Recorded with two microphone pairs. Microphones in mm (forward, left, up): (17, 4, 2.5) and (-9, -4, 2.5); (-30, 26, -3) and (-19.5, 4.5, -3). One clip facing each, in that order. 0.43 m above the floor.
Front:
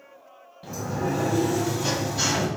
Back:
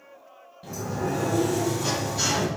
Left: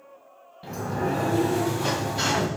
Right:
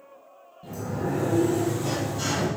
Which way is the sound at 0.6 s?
100° left.